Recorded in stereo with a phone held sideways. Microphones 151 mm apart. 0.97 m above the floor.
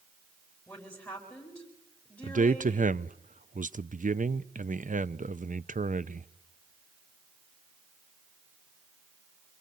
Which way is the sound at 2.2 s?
60° right (ahead or behind).